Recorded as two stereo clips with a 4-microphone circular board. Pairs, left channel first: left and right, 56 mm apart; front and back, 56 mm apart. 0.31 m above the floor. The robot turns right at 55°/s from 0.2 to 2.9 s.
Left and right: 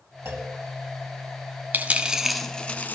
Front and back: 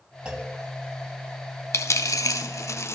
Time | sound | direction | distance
0.2 | a clunk | 115° right | 2.5 m
1.7 | a dropped coin | 30° right | 0.9 m